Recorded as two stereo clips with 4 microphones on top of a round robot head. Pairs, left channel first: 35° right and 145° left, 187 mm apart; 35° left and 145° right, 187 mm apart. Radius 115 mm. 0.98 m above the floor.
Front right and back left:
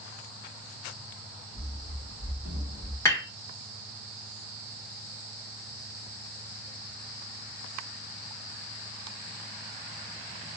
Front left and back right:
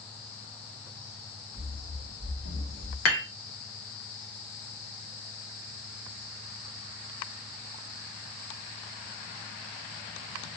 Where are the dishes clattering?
40° left, 1.4 m.